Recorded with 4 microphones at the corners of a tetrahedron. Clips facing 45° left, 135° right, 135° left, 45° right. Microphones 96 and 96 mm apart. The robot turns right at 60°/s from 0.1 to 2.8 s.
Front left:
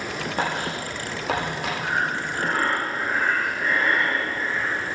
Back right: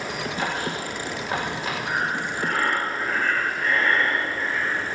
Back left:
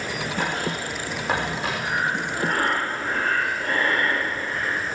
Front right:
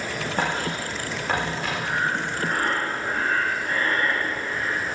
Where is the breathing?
60° left, 3.5 m; by 4.8 s 120° left, 3.5 m.